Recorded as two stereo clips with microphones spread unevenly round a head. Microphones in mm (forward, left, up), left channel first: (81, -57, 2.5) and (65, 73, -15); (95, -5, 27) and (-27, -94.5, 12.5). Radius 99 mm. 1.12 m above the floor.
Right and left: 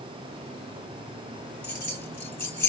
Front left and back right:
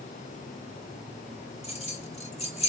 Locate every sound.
1.6 s keys jangling: 10° right, 3.5 m